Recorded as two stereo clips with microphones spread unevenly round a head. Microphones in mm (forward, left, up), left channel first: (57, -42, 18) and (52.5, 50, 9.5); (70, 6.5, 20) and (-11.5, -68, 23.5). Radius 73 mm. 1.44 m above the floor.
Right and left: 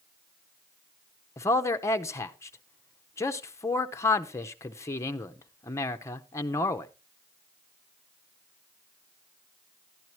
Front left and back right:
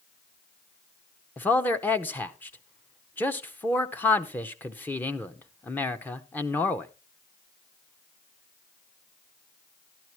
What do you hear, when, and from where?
1.4 s a man speaking: 30° right, 0.7 m